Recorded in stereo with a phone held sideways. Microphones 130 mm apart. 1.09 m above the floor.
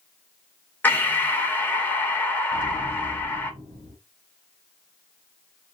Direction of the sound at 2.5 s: 40° right (ahead or behind).